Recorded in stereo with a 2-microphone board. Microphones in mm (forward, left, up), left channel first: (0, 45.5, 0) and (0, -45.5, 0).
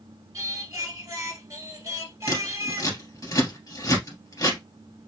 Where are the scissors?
40° left (ahead or behind), 2.5 m.